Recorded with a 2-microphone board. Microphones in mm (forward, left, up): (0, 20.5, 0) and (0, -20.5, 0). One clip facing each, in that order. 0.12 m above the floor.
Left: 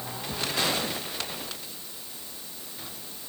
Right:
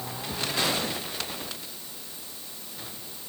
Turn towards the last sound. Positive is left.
No sound to turn to.